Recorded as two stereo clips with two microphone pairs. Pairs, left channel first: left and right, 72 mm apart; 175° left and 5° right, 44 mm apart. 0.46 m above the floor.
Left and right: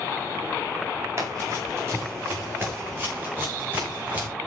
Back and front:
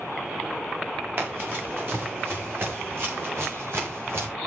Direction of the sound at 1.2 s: 45° right.